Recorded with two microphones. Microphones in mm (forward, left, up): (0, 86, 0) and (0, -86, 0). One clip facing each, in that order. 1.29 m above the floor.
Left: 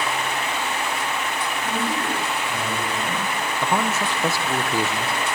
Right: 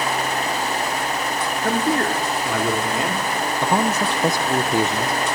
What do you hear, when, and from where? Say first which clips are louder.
1.6 s a man speaking: right 7 dB; 65° right (ahead or behind), 4.5 m; by 3.3 s 80° right, 4.5 m
3.6 s a man speaking: right 3 dB; 15° right (ahead or behind), 0.7 m